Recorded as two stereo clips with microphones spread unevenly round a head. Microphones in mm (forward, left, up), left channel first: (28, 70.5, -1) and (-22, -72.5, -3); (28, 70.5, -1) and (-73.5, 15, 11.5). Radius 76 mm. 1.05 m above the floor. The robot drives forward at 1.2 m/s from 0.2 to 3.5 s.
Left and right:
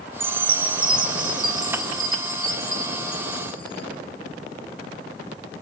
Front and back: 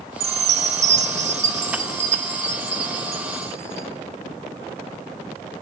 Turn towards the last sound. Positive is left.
turn(degrees=-175)